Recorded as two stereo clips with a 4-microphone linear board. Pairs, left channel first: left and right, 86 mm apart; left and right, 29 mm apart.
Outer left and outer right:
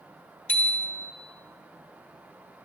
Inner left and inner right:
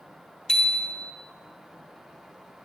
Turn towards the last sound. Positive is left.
turn(degrees=20)  # may be behind; listen again after turning